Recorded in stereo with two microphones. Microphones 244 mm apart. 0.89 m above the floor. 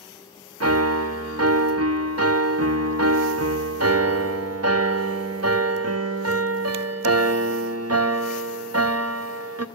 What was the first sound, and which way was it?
A piano, 80° right.